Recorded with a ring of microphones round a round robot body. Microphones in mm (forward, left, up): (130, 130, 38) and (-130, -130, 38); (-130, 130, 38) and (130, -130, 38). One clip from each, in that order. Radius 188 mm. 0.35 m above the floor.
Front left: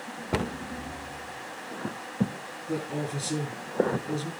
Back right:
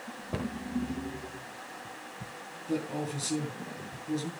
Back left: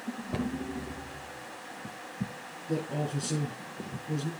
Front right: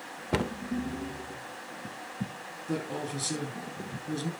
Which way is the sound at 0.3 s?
5° right.